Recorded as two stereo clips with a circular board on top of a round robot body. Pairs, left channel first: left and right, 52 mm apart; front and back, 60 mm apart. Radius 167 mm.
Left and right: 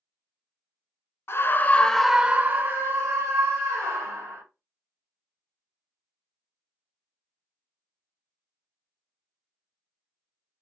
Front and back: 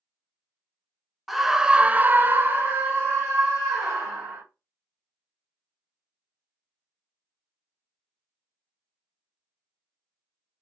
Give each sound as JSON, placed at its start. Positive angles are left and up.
{"t": 1.3, "sound": "a scream", "azimuth_deg": 90, "distance_m": 0.7}